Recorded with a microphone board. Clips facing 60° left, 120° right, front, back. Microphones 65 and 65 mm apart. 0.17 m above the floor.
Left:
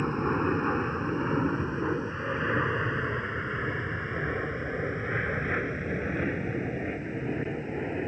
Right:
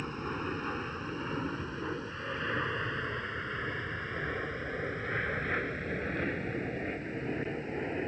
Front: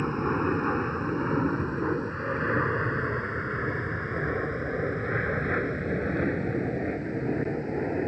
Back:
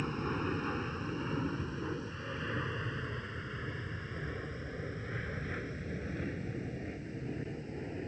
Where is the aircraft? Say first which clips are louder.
Left 9 dB, front 9 dB; 25° left; by 8.1 s 25° right.